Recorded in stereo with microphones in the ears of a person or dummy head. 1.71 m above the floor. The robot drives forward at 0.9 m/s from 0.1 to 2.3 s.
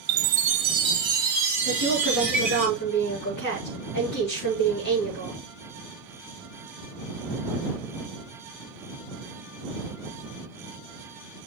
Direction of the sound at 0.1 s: 65° right (ahead or behind).